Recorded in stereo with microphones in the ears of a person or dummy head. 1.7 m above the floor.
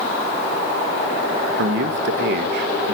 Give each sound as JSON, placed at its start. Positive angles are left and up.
{"t": 1.6, "sound": "a man speaking", "side_deg": -65, "distance_m": 1.5}